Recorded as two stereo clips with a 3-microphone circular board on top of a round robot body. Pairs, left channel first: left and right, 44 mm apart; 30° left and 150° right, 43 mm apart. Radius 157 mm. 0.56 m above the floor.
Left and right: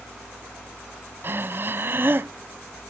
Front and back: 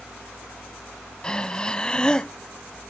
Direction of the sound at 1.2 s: 40° right.